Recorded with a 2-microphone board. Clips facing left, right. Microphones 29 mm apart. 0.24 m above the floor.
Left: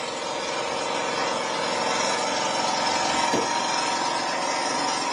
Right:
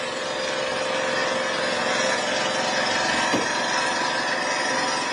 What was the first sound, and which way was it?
An engine running, 60° right (ahead or behind).